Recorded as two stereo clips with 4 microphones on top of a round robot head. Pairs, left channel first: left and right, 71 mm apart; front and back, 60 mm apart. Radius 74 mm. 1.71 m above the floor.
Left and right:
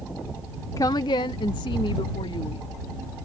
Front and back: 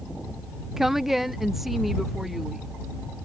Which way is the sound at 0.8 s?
100° left.